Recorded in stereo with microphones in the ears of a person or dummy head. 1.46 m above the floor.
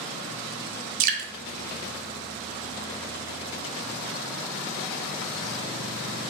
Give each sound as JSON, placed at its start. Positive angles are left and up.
{"t": 1.0, "sound": "dripping", "side_deg": -40, "distance_m": 0.5}